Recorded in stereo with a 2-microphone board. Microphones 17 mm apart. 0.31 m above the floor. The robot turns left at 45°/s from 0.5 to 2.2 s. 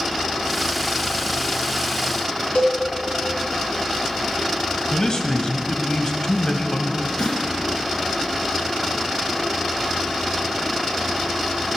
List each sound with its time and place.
2.5 s a cowbell: 70° left (ahead or behind), 6.5 m
4.9 s a man speaking: 45° left (ahead or behind), 1.5 m
7.2 s a snare drum: 50° left (ahead or behind), 2.5 m